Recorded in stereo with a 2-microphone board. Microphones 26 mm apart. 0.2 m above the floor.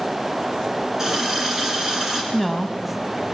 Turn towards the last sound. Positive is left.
turn(degrees=0)  # may be behind; listen again after turning